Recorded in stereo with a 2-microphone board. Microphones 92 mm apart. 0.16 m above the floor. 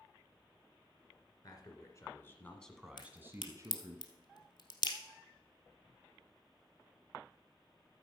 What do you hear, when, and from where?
1.4 s a man speaking: 45° left (ahead or behind), 2 m; by 4.0 s 40° right (ahead or behind), 2.0 m
3.0 s a crack: 55° left (ahead or behind), 2 m